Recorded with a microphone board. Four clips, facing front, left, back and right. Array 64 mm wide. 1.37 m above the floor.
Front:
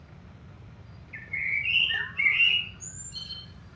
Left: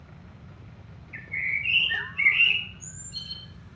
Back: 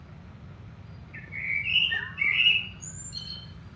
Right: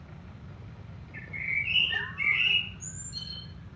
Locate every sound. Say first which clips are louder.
1.1 s a bird: left 3 dB, front 2 dB; 60° left, 2 m